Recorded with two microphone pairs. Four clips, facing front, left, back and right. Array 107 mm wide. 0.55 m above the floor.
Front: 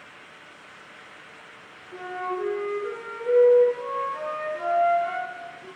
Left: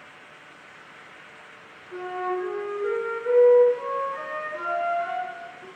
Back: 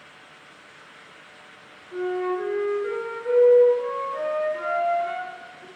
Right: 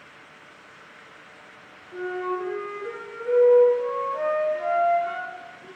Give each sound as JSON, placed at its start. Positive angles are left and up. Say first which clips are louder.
{"t": 1.9, "sound": "a flute", "louder": "even, back 5 dB", "azimuth_deg": 120, "distance_m": 7.0}